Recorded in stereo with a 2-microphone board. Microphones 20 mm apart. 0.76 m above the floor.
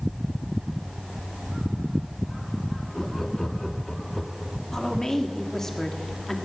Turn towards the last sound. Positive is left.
turn(degrees=25)  # may be behind; listen again after turning